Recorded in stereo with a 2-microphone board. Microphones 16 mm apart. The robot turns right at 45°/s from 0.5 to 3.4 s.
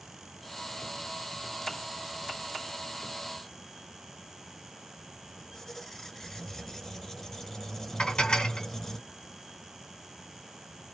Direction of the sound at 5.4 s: 30° left (ahead or behind).